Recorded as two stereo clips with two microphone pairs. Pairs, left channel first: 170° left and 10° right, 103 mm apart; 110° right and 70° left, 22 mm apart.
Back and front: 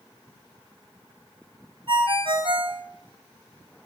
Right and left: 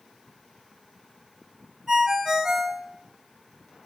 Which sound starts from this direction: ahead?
A ringtone, at 1.9 s.